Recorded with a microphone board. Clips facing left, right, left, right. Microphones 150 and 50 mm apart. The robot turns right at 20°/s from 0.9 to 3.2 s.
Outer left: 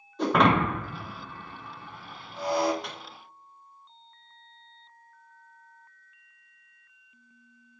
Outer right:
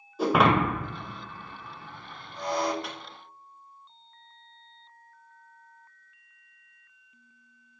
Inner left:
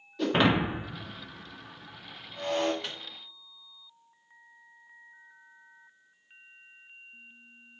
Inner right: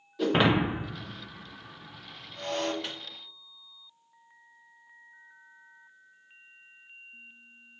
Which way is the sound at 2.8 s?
Centre (ahead or behind).